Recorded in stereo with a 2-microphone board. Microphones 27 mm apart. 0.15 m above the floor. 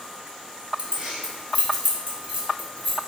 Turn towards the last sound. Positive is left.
turn(degrees=-65)  # may be behind; listen again after turning